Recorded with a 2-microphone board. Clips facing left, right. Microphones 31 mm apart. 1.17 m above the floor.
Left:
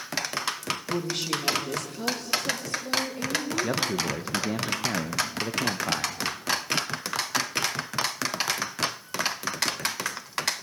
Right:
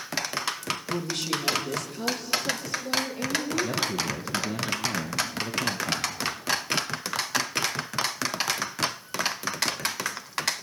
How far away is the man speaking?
About 1.0 m.